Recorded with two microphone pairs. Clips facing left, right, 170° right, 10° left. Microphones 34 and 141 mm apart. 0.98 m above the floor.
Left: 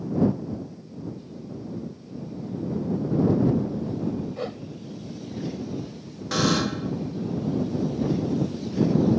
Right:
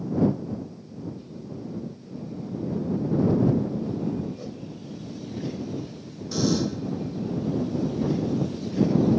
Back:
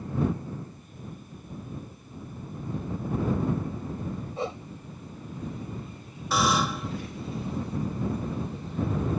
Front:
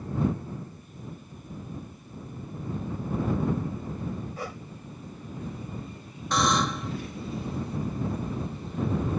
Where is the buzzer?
105° left.